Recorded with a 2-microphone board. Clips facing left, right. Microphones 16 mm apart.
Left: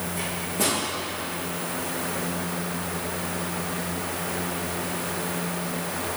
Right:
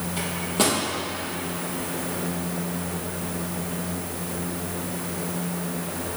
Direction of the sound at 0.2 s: 60° right (ahead or behind).